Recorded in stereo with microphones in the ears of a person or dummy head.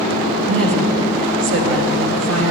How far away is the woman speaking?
About 1.7 m.